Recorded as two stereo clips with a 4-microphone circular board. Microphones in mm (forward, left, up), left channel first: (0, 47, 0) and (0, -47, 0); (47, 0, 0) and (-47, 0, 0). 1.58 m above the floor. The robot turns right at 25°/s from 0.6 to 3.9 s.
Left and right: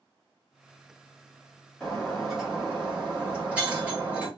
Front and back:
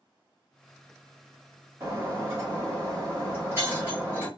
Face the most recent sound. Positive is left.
turn(degrees=-140)